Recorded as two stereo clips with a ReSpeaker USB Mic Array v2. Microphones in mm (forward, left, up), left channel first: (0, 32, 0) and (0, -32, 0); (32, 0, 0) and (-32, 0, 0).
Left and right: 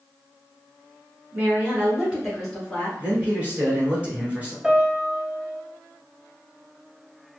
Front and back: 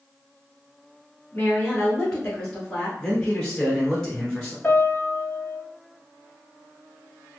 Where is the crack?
I don't hear a crack.